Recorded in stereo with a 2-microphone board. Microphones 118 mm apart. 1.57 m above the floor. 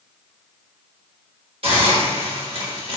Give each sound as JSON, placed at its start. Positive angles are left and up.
{"t": 1.6, "sound": "a hiss", "side_deg": -55, "distance_m": 1.0}